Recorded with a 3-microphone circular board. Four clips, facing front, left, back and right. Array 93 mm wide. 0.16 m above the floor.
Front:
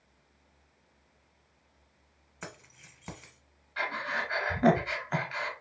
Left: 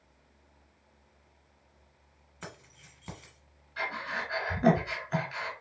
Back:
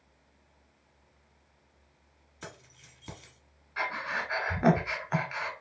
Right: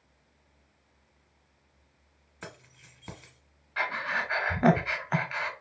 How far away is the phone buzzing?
I don't hear a phone buzzing.